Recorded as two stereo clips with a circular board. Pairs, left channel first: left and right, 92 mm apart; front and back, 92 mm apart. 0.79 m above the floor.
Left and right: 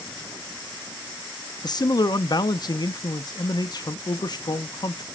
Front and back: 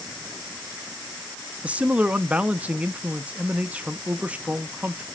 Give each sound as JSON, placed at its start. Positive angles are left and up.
{"t": 1.6, "sound": "a man speaking", "azimuth_deg": 110, "distance_m": 0.5}